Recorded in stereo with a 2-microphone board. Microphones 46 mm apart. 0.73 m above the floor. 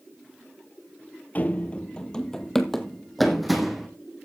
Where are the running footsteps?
40° left (ahead or behind), 0.9 m; by 3.9 s 5° right (ahead or behind), 2 m.